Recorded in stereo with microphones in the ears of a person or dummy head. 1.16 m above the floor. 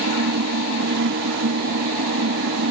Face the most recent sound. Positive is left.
turn(degrees=-60)  # may be behind; listen again after turning